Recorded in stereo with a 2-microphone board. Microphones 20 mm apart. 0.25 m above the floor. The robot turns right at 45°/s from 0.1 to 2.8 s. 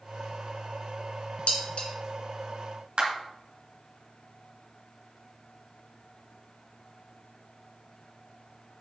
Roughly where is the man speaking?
No man speaking in this recording.